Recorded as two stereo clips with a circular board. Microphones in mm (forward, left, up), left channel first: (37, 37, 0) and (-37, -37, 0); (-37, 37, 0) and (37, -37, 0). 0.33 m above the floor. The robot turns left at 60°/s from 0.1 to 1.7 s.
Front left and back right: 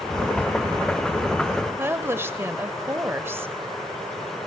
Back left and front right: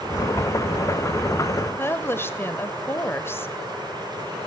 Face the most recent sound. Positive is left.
turn(degrees=180)